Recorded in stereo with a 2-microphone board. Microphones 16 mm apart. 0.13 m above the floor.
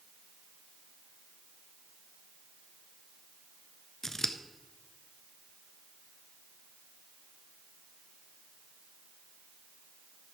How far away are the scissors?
About 0.7 m.